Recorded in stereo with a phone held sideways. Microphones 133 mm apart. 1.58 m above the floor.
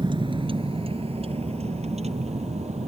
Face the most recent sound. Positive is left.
turn(degrees=-55)  # may be behind; listen again after turning